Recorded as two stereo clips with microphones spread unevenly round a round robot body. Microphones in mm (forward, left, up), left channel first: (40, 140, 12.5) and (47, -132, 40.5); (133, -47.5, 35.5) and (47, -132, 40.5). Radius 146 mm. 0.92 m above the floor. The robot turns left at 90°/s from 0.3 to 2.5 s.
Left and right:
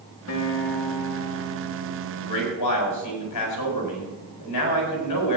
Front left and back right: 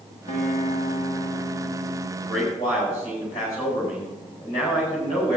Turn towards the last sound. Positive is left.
turn(degrees=120)